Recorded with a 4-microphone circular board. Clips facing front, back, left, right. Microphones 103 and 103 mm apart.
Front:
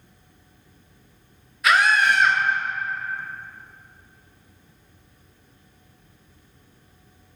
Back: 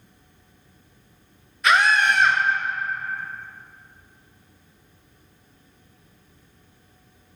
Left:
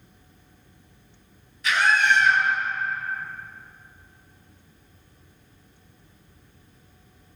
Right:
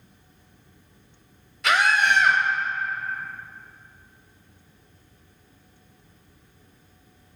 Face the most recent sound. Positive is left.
turn(degrees=-85)